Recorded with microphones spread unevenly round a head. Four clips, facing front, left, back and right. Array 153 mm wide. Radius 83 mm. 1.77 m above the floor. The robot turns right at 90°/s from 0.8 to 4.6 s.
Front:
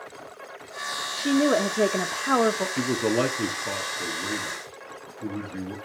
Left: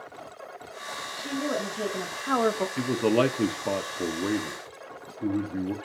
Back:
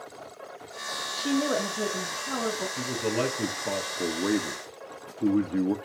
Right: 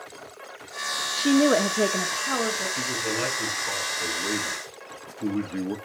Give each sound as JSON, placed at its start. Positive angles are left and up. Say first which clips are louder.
{"t": 1.1, "sound": "a woman speaking", "louder": "right 11 dB, front 5 dB", "azimuth_deg": -95, "distance_m": 1.1}
{"t": 2.8, "sound": "a man speaking", "louder": "left 6 dB, front 3 dB", "azimuth_deg": 20, "distance_m": 1.2}